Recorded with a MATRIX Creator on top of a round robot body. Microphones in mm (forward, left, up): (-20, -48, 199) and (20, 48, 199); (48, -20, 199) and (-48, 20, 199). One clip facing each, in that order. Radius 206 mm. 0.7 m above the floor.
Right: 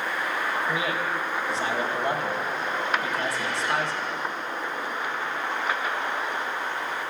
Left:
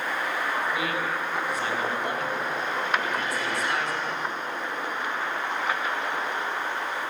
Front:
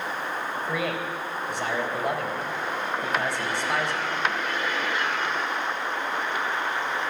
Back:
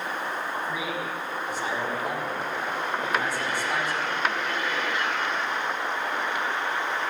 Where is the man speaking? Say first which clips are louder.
Right 1 dB, front 2 dB; 50° right, 4 m.